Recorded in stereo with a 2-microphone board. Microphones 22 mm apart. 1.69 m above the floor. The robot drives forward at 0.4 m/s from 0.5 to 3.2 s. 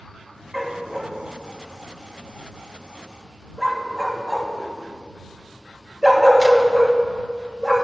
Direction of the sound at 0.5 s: 15° right (ahead or behind).